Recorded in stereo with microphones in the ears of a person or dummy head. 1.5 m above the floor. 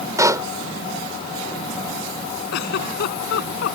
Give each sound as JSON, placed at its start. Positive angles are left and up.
{"t": 0.2, "sound": "a pop", "side_deg": -15}
{"t": 2.5, "sound": "a giggle", "side_deg": 65}